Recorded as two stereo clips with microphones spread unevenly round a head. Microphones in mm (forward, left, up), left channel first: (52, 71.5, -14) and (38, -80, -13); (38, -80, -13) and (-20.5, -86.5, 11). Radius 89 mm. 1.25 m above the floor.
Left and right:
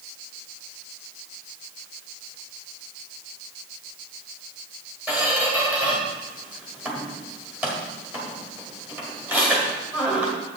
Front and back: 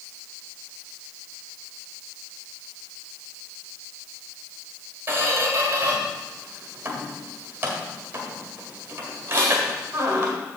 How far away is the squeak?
About 1.5 m.